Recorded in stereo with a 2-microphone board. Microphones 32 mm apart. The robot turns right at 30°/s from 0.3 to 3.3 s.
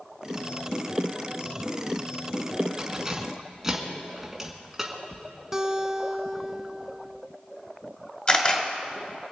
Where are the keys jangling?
25° right (ahead or behind), 1.8 m; by 5.2 s 10° right (ahead or behind), 1.8 m.